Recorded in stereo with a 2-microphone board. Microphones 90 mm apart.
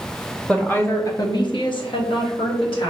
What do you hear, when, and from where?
0.5 s a woman speaking: 10° left (ahead or behind), 0.8 m; by 2.9 s 70° left (ahead or behind), 1.6 m